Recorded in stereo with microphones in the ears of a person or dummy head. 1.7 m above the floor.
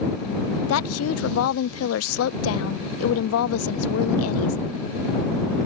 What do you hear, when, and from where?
0.7 s a woman speaking: 85° left